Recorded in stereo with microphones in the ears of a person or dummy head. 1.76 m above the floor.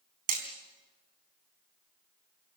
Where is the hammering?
45° right (ahead or behind), 3.5 m.